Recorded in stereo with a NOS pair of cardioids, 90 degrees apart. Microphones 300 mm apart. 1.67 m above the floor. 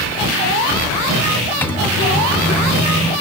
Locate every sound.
1.6 s a microwave: 5° left, 1.6 m